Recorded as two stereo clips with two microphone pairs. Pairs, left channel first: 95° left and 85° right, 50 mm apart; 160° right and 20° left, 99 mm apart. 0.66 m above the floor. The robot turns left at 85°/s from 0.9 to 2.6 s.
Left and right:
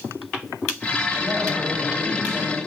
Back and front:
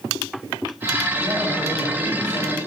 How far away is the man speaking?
About 3 m.